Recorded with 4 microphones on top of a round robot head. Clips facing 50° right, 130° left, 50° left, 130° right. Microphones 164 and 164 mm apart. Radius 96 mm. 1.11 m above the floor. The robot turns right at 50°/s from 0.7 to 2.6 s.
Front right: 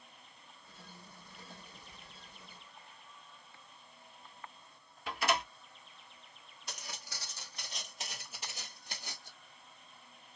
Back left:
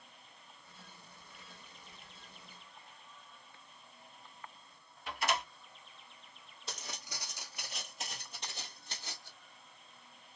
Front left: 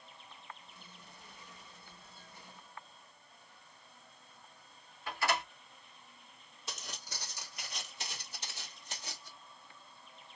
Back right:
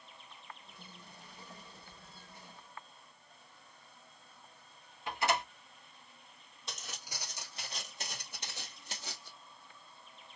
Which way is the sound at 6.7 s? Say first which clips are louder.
Back left 2 dB, even; 130° left.